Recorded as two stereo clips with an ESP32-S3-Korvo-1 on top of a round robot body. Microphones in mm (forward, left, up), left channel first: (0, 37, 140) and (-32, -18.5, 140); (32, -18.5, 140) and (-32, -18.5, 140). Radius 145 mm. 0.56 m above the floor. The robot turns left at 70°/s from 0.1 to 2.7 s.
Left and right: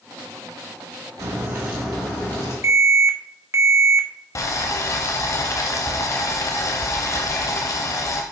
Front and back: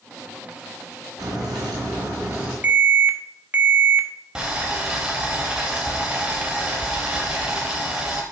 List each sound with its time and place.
1.2 s a crack: 160° right, 3.5 m; by 2.5 s 105° left, 3.5 m
2.6 s an alarm: 125° right, 1.2 m; by 4.1 s 130° right, 1.2 m
4.3 s boiling: 100° left, 0.5 m